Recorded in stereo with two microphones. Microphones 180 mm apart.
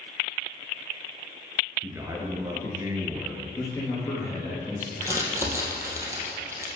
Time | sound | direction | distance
1.8 | a man speaking | 15° right (ahead or behind) | 1.5 m
3.5 | a man speaking | 15° left (ahead or behind) | 3 m
5.0 | crumpling | 15° right (ahead or behind) | 2 m